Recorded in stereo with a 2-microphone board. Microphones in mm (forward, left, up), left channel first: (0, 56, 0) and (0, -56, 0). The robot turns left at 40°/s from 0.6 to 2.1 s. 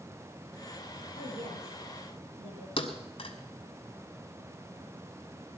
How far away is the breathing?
I don't hear breathing.